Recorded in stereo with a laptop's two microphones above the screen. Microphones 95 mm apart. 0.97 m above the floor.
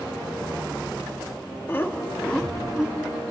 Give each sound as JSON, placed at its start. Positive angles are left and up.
{"t": 1.7, "sound": "laughter", "side_deg": 25, "distance_m": 1.9}